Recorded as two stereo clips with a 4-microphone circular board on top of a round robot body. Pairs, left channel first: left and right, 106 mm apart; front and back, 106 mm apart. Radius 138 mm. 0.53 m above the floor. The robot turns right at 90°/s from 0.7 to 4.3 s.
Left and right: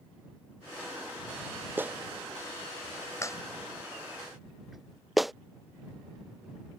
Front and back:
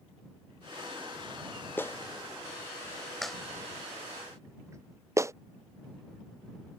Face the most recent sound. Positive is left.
turn(degrees=-175)